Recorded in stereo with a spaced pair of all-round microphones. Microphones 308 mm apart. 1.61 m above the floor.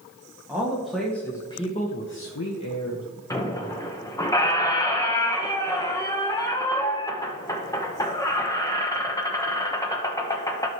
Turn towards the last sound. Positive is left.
turn(degrees=10)  # may be behind; listen again after turning